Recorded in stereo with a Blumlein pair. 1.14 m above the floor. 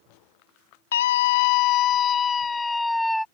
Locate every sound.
0.9 s a scream: 60° left; by 3.2 s straight ahead